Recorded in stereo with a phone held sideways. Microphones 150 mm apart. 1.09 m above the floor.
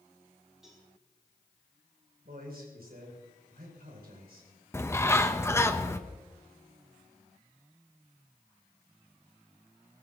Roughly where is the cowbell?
Centre.